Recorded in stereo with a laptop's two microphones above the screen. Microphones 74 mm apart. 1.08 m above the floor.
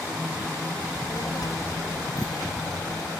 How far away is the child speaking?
About 3 m.